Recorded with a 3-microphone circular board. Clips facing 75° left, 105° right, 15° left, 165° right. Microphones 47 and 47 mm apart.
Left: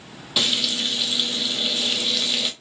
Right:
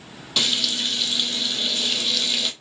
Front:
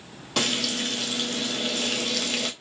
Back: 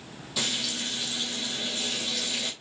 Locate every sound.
0.4 s frying: 10° right, 0.6 m